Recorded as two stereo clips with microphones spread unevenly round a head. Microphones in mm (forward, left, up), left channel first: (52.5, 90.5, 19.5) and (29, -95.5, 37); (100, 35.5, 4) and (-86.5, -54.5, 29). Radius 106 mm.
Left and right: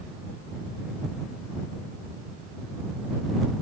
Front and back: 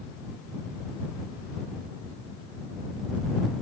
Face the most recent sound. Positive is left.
No sound to turn to.